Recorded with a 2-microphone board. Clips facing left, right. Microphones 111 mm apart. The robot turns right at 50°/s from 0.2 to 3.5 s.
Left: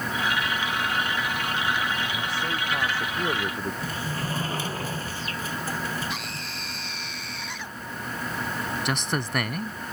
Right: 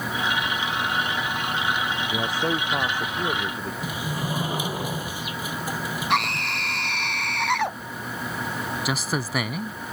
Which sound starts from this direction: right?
A scream, at 6.1 s.